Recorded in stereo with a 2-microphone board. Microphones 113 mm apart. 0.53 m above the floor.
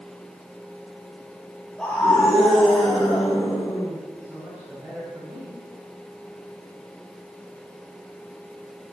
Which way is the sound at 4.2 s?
15° right (ahead or behind).